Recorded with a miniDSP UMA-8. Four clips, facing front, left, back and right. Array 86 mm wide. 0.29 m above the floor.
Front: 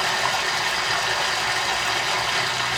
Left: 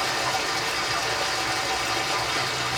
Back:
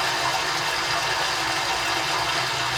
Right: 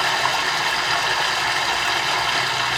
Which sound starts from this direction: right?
Running water, at 0.0 s.